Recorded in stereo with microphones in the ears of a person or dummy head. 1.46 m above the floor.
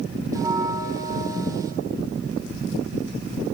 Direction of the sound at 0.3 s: 15° right (ahead or behind).